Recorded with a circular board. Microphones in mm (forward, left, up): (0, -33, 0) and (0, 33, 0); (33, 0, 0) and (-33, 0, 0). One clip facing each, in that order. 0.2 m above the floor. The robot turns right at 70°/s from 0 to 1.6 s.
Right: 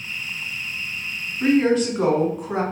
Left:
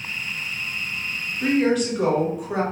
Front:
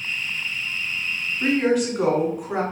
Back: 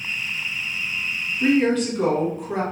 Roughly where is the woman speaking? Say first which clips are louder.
Right 2 dB, back 1 dB; right.